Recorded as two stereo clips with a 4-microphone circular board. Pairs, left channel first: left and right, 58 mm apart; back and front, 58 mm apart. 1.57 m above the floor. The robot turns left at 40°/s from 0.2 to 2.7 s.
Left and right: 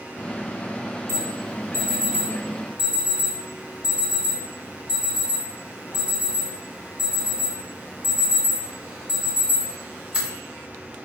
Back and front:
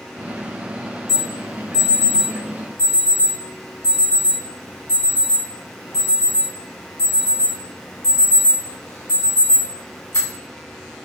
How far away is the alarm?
About 1.7 m.